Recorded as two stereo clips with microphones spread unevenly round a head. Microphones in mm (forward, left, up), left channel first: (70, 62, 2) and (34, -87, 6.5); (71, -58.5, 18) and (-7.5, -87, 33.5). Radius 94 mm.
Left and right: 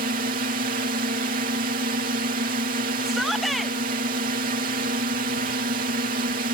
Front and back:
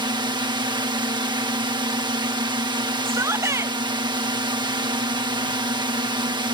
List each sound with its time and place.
0.0 s a drone: 135° right
3.0 s a shout: 165° left